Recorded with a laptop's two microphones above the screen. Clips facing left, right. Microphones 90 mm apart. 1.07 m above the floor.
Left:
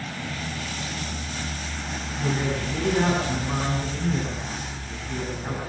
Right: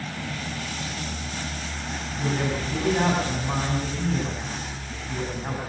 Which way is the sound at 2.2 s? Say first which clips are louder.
Even; 25° right (ahead or behind).